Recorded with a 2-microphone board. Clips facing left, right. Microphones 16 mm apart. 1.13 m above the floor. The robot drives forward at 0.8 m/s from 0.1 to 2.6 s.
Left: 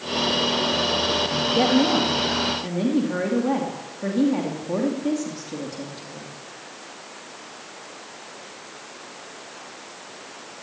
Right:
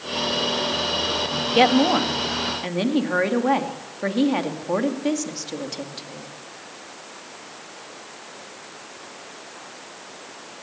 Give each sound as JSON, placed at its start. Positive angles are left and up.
{"t": 1.5, "sound": "a woman speaking", "side_deg": -60, "distance_m": 2.0}